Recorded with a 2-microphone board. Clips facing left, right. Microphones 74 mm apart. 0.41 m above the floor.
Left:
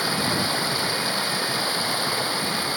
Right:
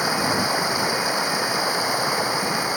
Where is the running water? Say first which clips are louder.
Right 3 dB; 15° right (ahead or behind).